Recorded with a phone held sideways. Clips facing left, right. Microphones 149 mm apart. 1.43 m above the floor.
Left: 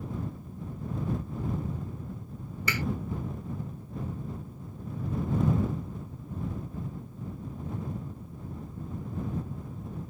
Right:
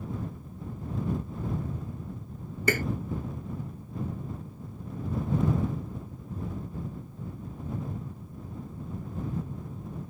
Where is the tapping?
50° right (ahead or behind).